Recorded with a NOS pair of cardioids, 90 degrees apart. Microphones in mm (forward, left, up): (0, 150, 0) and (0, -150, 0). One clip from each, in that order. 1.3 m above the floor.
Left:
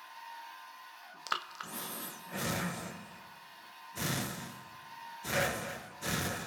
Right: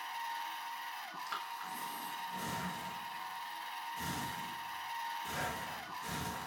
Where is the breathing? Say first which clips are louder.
Left 6 dB; 55° left, 0.8 m.